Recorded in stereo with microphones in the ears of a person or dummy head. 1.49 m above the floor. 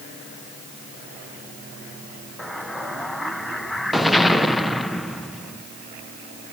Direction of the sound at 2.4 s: 5° left (ahead or behind).